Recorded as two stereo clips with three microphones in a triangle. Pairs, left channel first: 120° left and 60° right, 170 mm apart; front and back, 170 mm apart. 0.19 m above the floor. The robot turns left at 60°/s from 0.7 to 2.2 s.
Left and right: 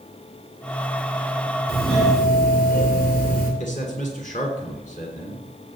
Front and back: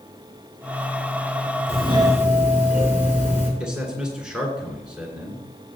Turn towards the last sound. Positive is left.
turn(degrees=95)